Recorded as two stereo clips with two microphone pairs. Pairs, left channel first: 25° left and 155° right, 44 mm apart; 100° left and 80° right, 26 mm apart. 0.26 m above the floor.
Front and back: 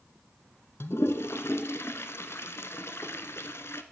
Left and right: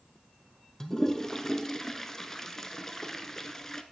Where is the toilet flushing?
25° left, 0.5 m.